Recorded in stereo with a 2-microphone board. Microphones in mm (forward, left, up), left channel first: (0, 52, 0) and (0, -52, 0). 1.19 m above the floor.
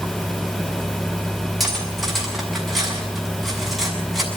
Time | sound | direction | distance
1.6 | cutlery clinking | centre (ahead or behind) | 7 m